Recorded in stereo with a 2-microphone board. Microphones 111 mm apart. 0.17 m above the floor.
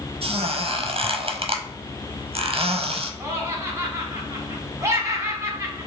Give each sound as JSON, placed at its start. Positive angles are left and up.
{"t": 0.2, "sound": "a squeak", "side_deg": -60, "distance_m": 0.6}
{"t": 3.2, "sound": "laughter", "side_deg": -25, "distance_m": 1.2}